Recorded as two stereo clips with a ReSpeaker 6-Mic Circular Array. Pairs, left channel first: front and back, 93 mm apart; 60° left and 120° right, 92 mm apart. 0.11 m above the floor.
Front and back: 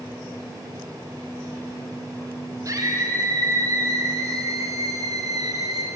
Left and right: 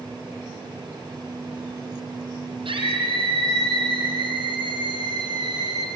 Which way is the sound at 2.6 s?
130° right.